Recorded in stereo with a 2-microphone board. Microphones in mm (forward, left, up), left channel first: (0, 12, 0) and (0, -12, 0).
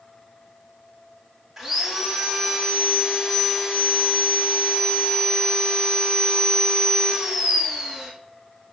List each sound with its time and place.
1.6 s sawing: 10° right (ahead or behind), 6.5 m